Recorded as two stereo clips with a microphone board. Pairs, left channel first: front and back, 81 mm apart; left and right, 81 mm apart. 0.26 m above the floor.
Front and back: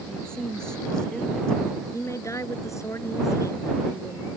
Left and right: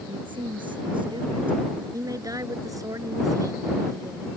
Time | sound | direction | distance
0.1 | a woman speaking | 80° right | ?
1.9 | a woman speaking | 50° right | ?